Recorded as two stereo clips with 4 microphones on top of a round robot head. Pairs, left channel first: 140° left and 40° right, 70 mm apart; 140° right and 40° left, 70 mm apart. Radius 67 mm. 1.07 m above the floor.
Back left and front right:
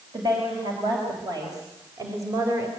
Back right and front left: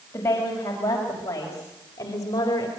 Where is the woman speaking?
80° right, 5.5 m; by 2.7 s 95° right, 4 m.